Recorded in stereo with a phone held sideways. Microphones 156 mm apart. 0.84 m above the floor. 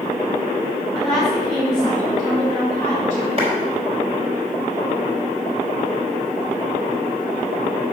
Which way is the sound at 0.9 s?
Centre (ahead or behind).